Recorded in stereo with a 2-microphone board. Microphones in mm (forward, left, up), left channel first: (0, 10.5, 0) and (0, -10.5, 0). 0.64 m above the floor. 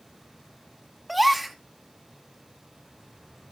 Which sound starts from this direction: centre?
A gasp, at 1.1 s.